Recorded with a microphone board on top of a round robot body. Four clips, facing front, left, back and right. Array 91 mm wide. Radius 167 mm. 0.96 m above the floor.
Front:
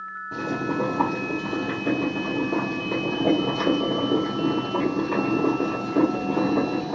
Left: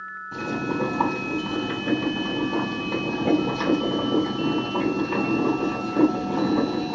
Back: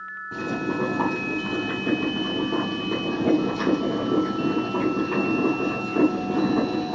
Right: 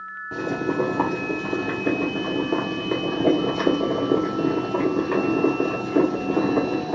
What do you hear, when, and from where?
0.3 s boiling: 90° right, 1.5 m